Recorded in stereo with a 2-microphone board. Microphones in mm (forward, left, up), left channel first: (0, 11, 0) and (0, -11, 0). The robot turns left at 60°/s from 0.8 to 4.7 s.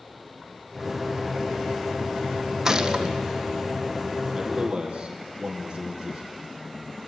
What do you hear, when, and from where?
2.6 s a gunshot: 20° right, 1.4 m; by 3.1 s 50° right, 1.4 m
4.3 s a man speaking: 5° right (ahead or behind), 5 m; by 6.5 s 30° right (ahead or behind), 5 m